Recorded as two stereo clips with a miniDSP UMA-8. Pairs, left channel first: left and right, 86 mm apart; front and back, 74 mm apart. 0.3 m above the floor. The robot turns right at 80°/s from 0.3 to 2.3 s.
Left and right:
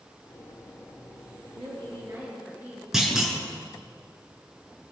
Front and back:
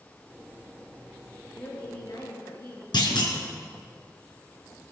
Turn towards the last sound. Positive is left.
turn(degrees=-5)